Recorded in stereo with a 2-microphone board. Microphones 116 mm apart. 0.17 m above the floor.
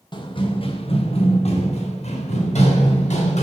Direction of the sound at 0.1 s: 40° left (ahead or behind).